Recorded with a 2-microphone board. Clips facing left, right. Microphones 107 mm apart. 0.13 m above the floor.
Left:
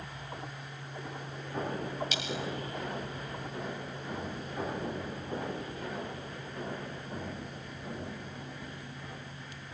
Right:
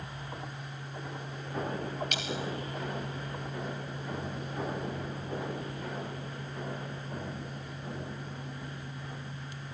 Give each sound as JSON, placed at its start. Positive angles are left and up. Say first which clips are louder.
{"t": 2.1, "sound": "a dropped coin", "louder": "right 1 dB", "side_deg": -55, "distance_m": 2.5}